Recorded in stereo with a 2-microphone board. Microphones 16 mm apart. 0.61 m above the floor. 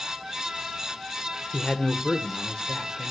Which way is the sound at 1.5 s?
65° left (ahead or behind).